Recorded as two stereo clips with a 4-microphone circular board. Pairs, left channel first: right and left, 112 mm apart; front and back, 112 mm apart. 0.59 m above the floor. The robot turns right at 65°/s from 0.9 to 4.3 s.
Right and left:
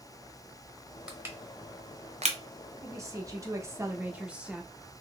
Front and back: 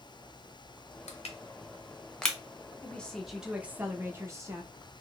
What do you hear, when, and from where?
1.1 s crushing: 10° left, 0.8 m; by 2.4 s 90° left, 0.8 m
2.8 s a woman speaking: 60° left, 0.8 m; by 4.7 s 155° left, 0.8 m